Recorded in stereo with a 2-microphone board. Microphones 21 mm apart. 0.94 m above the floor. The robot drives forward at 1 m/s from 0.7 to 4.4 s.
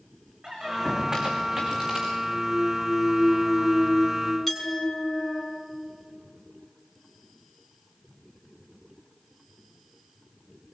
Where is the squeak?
35° right (ahead or behind), 5.5 m; by 2.1 s 30° right (ahead or behind), 6.5 m.